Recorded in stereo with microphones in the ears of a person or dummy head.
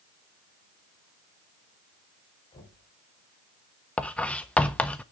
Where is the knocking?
20° left (ahead or behind), 3 m.